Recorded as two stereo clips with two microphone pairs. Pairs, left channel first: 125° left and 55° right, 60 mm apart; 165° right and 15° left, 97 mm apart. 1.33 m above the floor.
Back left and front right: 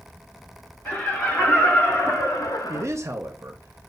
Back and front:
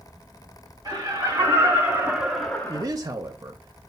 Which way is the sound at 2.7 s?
30° right.